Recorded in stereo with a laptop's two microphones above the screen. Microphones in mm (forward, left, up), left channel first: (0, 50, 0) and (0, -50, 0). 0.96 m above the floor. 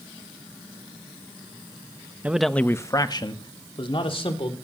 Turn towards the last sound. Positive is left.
turn(degrees=60)  # may be behind; listen again after turning